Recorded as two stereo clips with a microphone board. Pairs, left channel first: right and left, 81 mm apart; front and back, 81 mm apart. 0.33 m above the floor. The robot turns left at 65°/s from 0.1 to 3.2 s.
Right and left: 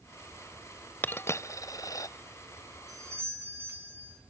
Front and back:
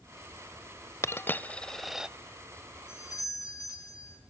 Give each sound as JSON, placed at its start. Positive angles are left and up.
{"t": 1.0, "sound": "a dropped coin", "azimuth_deg": -35, "distance_m": 0.5}
{"t": 2.9, "sound": "a doorbell", "azimuth_deg": 50, "distance_m": 5.0}